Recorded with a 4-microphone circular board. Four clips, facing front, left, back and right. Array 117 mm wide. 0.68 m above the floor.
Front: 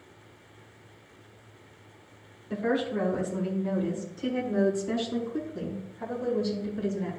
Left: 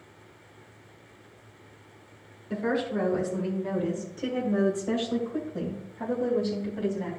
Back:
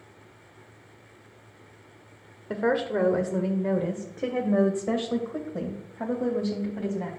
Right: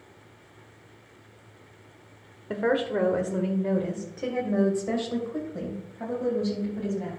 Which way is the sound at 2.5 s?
145° right.